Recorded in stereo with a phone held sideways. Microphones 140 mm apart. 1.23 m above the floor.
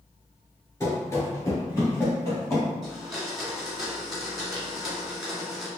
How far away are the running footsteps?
About 1.2 m.